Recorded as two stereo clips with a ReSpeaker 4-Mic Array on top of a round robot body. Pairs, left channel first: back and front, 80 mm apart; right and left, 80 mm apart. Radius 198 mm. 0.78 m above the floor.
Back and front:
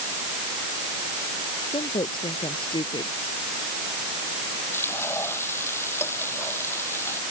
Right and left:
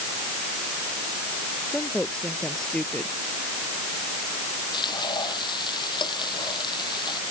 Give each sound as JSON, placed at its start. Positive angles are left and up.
{"t": 1.7, "sound": "a woman speaking", "azimuth_deg": -175}
{"t": 4.7, "sound": "frying", "azimuth_deg": -120}